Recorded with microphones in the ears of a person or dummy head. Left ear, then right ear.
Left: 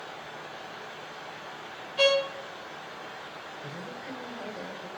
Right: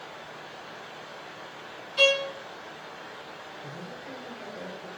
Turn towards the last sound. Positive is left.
turn(degrees=20)  # may be behind; listen again after turning